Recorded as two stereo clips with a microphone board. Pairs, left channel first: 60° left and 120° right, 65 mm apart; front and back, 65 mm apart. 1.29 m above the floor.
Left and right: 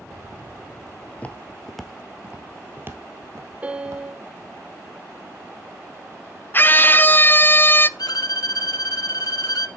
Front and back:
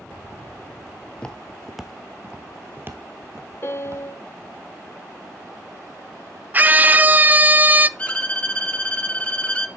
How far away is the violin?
About 1.0 m.